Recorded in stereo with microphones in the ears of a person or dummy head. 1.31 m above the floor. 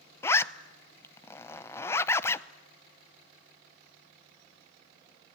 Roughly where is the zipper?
Centre.